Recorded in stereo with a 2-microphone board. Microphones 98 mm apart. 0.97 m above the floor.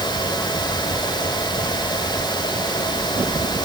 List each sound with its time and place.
Only background noise.